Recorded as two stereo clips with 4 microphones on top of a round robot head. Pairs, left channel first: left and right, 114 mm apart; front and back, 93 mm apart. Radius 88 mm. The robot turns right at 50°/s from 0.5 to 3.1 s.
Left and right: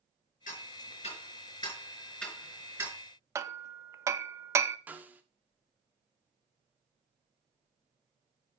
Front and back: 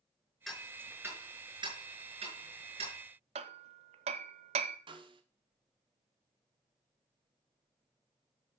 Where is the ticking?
85° left, 5.5 m; by 3.0 s 150° right, 5.5 m.